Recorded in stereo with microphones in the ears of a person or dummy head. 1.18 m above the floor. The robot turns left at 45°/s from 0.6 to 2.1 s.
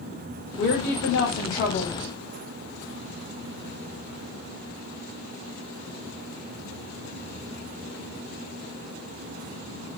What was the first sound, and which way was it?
A woman speaking, 130° left.